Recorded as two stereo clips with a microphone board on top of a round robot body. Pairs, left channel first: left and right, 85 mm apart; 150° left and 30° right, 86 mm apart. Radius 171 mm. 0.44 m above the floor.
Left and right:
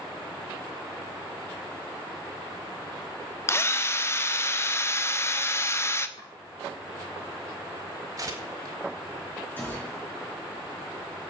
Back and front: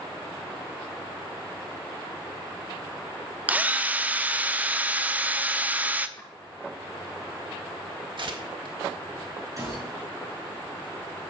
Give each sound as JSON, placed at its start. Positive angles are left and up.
{"t": 3.5, "sound": "a drill", "azimuth_deg": 35, "distance_m": 1.1}
{"t": 6.2, "sound": "chopping", "azimuth_deg": 100, "distance_m": 5.0}
{"t": 8.2, "sound": "tearing paper", "azimuth_deg": -45, "distance_m": 1.8}
{"t": 9.6, "sound": "a gunshot", "azimuth_deg": 20, "distance_m": 5.5}